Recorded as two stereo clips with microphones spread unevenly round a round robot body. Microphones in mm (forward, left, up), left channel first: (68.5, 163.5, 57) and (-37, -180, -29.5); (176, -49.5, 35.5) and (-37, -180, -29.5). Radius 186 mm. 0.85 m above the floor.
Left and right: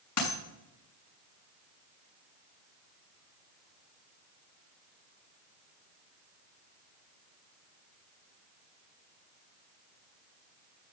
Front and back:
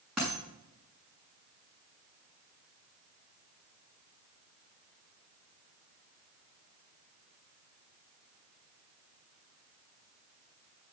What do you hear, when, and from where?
0.2 s a dropped coin: 120° left, 6 m